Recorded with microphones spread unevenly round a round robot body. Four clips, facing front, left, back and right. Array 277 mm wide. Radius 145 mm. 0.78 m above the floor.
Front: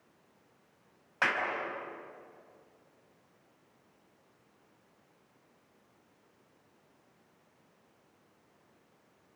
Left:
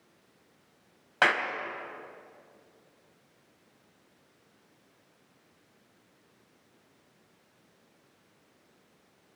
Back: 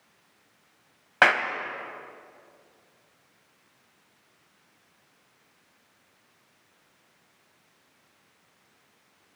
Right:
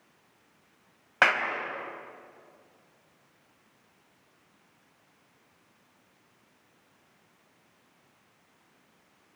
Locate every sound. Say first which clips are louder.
1.2 s a clap: right 1 dB, back 10 dB; 165° right, 3.5 m